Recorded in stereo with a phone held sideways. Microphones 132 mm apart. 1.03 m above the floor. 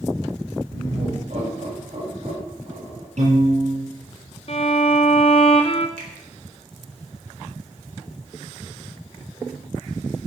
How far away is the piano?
About 7.5 m.